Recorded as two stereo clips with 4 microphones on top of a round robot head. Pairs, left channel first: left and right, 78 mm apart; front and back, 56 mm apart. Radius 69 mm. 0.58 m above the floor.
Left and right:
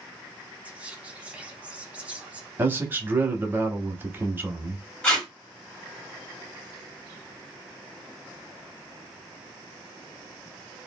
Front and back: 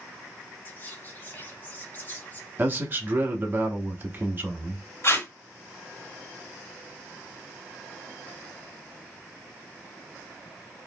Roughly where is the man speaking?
Behind right.